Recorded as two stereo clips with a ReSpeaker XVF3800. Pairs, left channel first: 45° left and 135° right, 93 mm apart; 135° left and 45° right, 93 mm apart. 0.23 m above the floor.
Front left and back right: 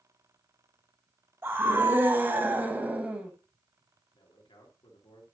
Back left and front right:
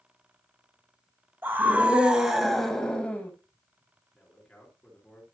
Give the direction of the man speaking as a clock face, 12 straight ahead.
10 o'clock.